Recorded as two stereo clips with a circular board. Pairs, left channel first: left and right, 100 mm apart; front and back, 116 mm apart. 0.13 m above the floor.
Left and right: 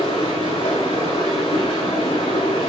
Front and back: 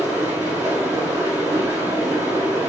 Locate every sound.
0.0 s running water: 110° left, 5 m